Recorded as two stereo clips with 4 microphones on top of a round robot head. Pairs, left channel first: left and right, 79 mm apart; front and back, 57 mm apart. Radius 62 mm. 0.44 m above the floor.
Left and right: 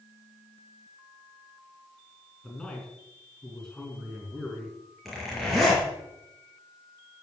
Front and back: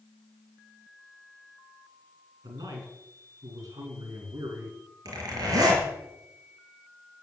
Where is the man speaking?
175° left, 4.5 m.